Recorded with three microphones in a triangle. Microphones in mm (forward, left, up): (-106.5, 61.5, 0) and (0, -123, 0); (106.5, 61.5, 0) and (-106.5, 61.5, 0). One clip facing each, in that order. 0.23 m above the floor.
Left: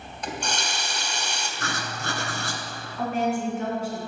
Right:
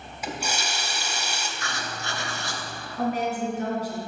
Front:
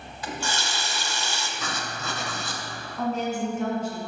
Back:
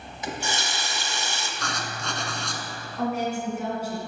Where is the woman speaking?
100° right, 2.5 m.